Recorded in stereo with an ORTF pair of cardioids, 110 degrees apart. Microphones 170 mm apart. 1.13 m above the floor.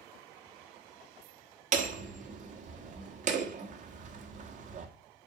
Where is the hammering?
45° right, 1.4 m.